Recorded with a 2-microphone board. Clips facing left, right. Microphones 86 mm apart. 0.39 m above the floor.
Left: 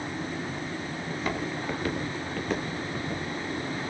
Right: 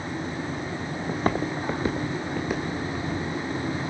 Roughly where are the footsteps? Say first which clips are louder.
Right 6 dB; right.